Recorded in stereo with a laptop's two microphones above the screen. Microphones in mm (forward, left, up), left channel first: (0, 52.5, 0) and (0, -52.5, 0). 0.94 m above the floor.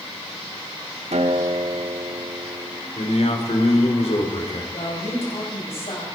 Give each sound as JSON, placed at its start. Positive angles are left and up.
{"t": 1.1, "sound": "a guitar", "side_deg": -85, "distance_m": 1.3}
{"t": 3.0, "sound": "a man speaking", "side_deg": 75, "distance_m": 2.5}
{"t": 4.7, "sound": "a woman speaking", "side_deg": 65, "distance_m": 5.0}